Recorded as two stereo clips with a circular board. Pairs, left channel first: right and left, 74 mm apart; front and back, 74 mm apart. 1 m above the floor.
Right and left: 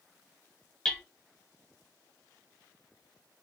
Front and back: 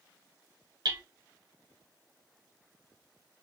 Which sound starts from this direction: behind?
Hammering, at 0.8 s.